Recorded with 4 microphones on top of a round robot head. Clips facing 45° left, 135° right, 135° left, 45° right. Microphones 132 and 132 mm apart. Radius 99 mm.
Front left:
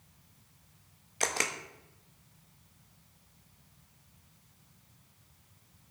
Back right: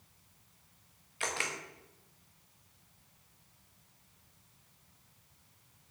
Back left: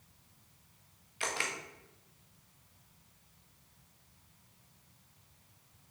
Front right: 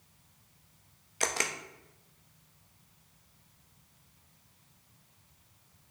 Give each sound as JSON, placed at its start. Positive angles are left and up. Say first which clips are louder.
{"t": 1.2, "sound": "a camera shutter", "louder": "front left 4 dB, front right 4 dB", "azimuth_deg": 0, "distance_m": 1.1}